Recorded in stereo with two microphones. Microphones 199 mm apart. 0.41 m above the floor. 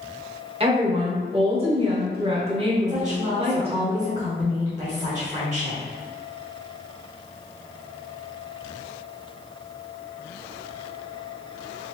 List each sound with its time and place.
0.6 s a woman speaking: 30° right (ahead or behind), 1.1 m
2.9 s a woman speaking: 35° right (ahead or behind), 1.0 m